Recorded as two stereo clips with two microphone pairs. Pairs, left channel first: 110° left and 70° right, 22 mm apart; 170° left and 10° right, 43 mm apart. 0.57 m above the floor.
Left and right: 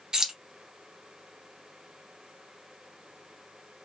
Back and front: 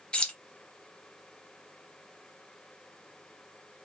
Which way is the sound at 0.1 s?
130° right.